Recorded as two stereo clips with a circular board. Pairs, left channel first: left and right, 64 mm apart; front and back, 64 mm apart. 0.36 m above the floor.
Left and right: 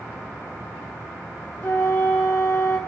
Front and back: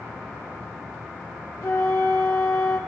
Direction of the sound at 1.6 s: 25° left.